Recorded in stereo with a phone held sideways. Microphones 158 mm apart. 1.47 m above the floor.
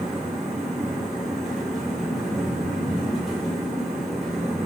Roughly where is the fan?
Centre.